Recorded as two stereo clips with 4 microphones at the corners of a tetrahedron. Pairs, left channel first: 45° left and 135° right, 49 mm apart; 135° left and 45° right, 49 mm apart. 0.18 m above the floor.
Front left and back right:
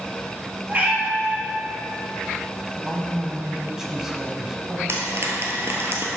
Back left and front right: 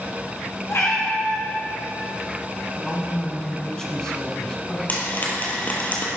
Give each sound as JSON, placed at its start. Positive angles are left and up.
{"t": 0.7, "sound": "a cat meowing", "azimuth_deg": 165, "distance_m": 1.9}
{"t": 2.7, "sound": "a man speaking", "azimuth_deg": 165, "distance_m": 1.1}
{"t": 4.9, "sound": "frying", "azimuth_deg": -170, "distance_m": 1.4}